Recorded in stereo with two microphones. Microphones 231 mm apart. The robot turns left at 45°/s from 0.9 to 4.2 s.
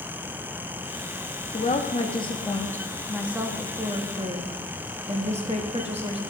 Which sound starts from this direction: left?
A woman speaking, at 1.5 s.